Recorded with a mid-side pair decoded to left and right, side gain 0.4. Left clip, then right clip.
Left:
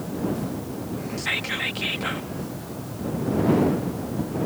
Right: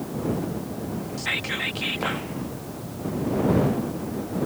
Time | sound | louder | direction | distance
1.2 | whispering | left 1 dB | 5° left | ?